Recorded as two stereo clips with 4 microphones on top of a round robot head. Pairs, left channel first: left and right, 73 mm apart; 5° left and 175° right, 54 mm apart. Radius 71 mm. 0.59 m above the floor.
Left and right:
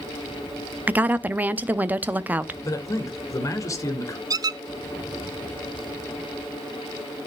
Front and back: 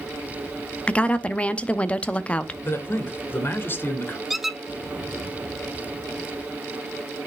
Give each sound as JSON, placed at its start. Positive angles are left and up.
{"t": 0.9, "sound": "a woman speaking", "azimuth_deg": -45, "distance_m": 0.7}
{"t": 2.6, "sound": "a man speaking", "azimuth_deg": 50, "distance_m": 2.0}
{"t": 4.3, "sound": "a squeak", "azimuth_deg": -90, "distance_m": 0.5}